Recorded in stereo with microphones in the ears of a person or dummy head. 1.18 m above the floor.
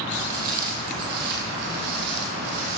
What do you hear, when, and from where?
0.1 s footsteps: 40° right (ahead or behind), 1.9 m; by 2.8 s 65° right (ahead or behind), 3 m